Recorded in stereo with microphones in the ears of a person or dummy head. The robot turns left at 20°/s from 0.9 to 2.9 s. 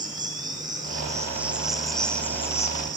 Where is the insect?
160° right, 2 m; by 3.0 s 160° left, 2 m.